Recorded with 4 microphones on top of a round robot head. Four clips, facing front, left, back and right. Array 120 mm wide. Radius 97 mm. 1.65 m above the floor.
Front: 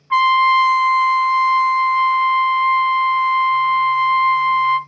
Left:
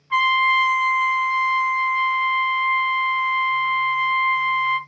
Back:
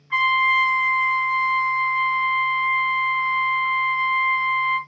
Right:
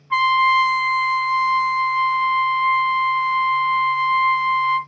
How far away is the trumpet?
About 0.9 m.